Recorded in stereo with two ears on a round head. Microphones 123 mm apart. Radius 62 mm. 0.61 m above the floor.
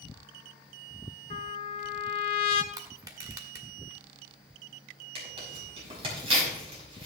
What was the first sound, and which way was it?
A trumpet, 40° left (ahead or behind).